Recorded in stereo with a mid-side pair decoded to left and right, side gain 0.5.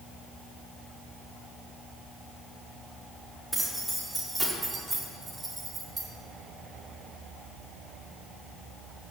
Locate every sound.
3.5 s keys jangling: 10° right, 4 m; by 6.1 s 30° right, 3 m